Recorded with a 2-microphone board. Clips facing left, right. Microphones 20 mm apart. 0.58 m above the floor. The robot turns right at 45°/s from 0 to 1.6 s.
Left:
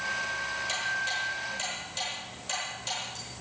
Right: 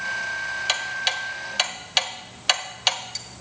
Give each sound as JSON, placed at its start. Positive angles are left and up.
{"t": 0.7, "sound": "ticking", "side_deg": -45, "distance_m": 1.1}